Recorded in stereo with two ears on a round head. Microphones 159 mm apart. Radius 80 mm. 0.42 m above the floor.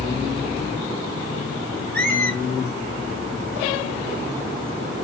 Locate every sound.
1.9 s a squeak: 10° left (ahead or behind), 1.4 m